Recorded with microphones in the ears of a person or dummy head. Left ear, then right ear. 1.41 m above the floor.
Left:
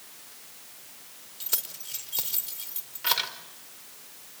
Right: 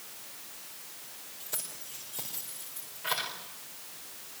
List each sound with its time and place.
1.4 s keys jangling: 55° left (ahead or behind), 4 m